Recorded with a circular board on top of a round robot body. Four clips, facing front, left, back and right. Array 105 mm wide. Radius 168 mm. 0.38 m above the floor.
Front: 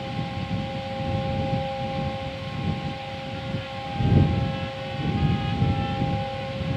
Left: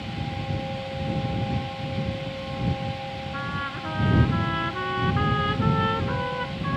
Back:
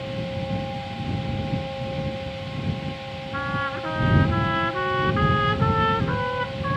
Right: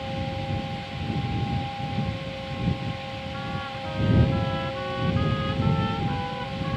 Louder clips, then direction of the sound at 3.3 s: Left 2 dB, back 5 dB; 160° left.